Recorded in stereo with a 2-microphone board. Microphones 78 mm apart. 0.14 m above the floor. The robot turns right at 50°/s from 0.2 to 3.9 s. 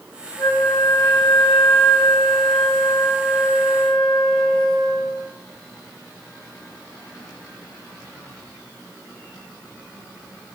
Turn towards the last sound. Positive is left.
turn(degrees=5)